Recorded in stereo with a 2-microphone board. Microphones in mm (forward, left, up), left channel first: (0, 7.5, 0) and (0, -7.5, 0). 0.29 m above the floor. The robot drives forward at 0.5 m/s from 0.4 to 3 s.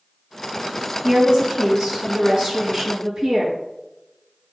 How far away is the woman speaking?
About 3.5 m.